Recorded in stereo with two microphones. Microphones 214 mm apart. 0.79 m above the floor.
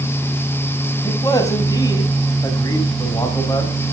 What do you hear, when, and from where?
1.0 s a man speaking: 15° left (ahead or behind), 5.5 m